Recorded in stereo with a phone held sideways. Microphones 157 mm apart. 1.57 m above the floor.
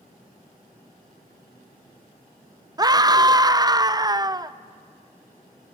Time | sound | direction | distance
2.8 | a scream | 25° right (ahead or behind) | 0.5 m